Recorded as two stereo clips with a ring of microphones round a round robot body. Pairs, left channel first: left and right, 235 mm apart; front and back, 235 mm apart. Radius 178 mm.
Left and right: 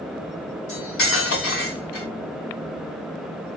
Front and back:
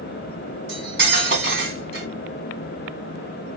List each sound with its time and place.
0.7 s cutlery clinking: 135° left, 2.5 m